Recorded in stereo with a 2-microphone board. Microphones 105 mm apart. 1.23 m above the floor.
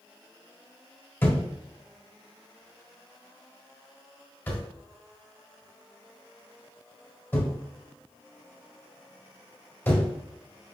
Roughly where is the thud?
Left.